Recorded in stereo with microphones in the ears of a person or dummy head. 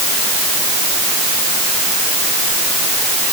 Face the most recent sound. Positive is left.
No sound to turn to.